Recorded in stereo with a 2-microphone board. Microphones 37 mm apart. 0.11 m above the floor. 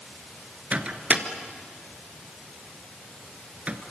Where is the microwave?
35° right (ahead or behind), 1.5 m.